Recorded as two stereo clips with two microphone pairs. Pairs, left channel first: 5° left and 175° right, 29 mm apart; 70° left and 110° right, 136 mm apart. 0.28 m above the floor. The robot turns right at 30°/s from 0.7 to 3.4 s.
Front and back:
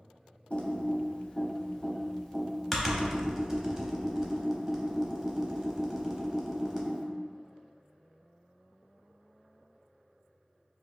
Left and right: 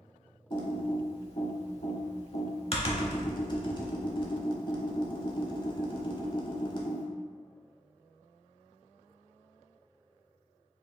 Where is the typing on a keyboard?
35° left, 0.7 m; by 7.0 s 115° left, 0.7 m.